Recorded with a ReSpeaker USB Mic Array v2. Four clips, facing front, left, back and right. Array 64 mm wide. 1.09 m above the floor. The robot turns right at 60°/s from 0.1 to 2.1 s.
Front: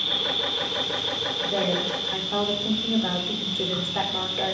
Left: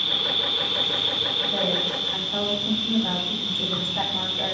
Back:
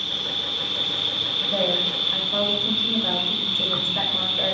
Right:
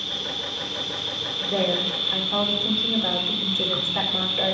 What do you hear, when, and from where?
0.0 s an insect: 80° left, 1.4 m; by 4.5 s 160° right, 1.4 m
1.4 s a woman speaking: 80° right, 4 m; by 4.5 s 40° right, 4 m